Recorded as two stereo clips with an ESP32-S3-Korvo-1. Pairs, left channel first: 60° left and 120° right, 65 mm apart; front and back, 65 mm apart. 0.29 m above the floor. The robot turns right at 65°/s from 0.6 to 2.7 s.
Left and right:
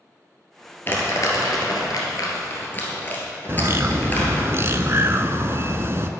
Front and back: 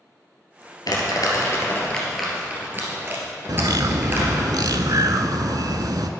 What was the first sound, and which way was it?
Crumpling, straight ahead.